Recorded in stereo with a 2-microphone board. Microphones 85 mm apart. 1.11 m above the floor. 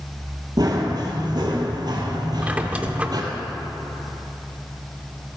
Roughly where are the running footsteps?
Right.